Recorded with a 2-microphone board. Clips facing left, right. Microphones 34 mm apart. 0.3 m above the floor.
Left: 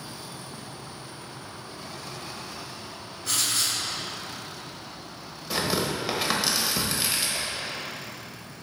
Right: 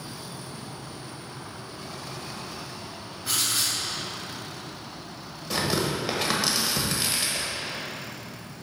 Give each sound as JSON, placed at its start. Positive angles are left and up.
{"t": 3.2, "sound": "writing", "side_deg": -10, "distance_m": 2.0}
{"t": 5.5, "sound": "tearing paper", "side_deg": 0, "distance_m": 1.0}